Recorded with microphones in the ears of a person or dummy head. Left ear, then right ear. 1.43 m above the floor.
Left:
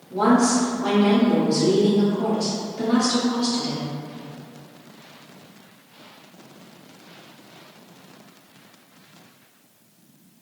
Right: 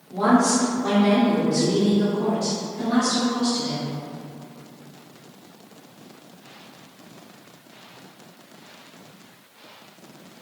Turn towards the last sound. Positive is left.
turn(degrees=65)  # may be behind; listen again after turning